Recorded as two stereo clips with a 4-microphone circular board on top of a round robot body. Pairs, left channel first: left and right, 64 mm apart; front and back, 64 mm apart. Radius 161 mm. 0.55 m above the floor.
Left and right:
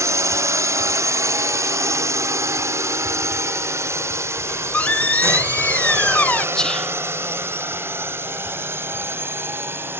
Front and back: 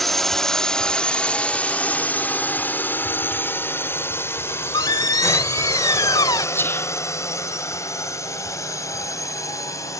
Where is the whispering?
15° left.